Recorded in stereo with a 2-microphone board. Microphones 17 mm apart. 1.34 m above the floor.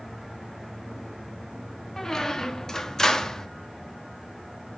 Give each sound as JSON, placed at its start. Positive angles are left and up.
{"t": 2.0, "sound": "a squeak", "side_deg": 30, "distance_m": 0.9}